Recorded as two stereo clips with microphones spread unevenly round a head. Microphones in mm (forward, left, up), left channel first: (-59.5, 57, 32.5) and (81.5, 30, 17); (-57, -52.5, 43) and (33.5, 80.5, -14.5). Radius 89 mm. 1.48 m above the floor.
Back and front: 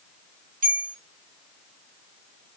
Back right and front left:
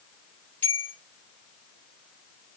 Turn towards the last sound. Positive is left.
turn(degrees=-40)